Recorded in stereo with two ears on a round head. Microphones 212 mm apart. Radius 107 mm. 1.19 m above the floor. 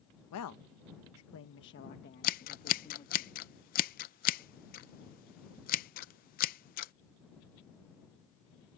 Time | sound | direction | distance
0.3 | a woman speaking | 75° left (ahead or behind) | ?
2.2 | scissors | 35° left (ahead or behind) | ?